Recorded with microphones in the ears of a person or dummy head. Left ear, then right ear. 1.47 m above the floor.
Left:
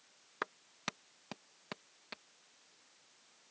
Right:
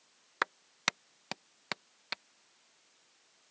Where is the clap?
40° right (ahead or behind).